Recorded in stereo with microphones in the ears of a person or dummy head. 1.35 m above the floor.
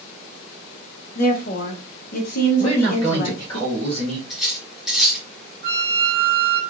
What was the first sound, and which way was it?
A woman speaking, 50° left (ahead or behind).